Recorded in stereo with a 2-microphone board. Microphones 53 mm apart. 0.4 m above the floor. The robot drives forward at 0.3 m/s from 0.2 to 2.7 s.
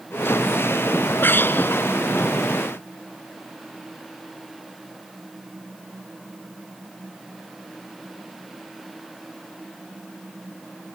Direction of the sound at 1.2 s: 40° left (ahead or behind).